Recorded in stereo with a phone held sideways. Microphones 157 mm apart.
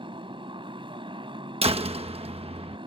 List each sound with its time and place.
0.0 s a motorcycle: 35° right (ahead or behind)
1.6 s a door slam: 40° right (ahead or behind)